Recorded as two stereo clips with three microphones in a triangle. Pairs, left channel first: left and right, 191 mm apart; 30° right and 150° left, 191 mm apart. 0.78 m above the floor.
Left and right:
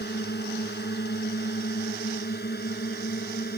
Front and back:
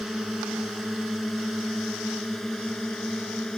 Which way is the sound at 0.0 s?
60° left.